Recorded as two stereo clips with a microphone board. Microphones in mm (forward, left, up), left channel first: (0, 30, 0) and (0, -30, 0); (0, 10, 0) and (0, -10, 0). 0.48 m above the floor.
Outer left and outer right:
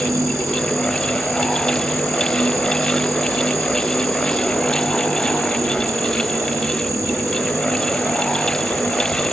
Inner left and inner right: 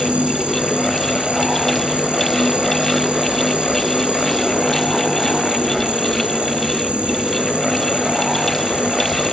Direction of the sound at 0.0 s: 65° right (ahead or behind).